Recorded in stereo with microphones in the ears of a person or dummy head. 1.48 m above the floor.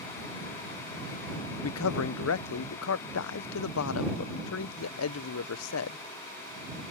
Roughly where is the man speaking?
Left.